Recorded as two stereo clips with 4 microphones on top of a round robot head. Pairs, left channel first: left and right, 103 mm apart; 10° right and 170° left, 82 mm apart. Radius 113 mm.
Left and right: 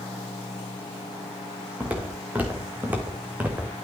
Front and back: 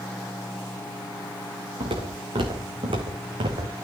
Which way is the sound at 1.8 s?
165° right.